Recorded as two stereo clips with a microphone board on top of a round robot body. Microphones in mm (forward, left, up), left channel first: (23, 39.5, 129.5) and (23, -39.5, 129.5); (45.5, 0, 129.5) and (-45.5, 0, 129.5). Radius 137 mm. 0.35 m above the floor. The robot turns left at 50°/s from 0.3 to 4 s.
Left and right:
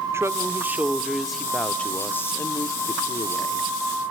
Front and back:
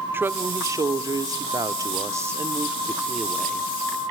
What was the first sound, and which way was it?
A woman speaking, 125° right.